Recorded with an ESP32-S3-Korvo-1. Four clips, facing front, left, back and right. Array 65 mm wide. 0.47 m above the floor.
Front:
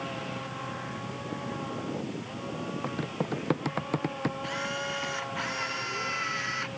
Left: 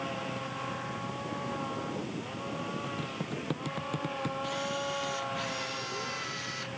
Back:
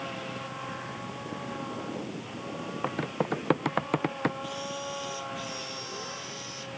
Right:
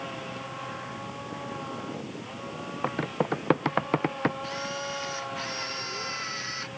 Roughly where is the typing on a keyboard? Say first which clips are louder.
Right 8 dB, back 5 dB; behind right.